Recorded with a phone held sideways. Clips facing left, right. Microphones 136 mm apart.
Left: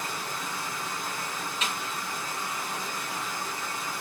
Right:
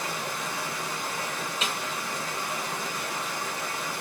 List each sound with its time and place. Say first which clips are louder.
0.0 s running water: right 2 dB; 65° right (ahead or behind), 1.0 m
1.6 s a snare drum: right 1 dB; 30° right (ahead or behind), 1.4 m